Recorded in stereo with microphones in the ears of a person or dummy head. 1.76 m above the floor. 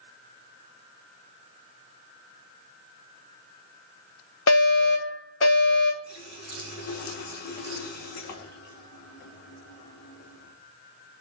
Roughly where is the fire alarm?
Left.